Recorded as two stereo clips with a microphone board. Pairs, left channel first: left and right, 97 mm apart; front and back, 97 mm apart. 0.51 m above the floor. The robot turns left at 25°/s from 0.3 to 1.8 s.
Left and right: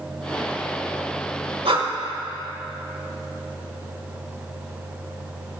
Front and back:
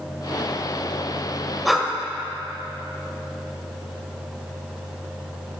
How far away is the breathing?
About 1.3 m.